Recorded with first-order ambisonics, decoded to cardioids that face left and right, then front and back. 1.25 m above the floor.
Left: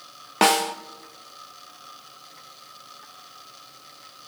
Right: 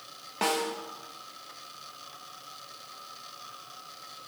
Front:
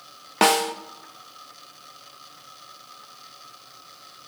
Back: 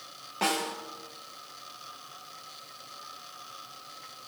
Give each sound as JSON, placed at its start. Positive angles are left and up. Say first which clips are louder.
{"t": 0.4, "sound": "a snare drum", "louder": "left 9 dB, front 10 dB", "azimuth_deg": 40, "distance_m": 1.0}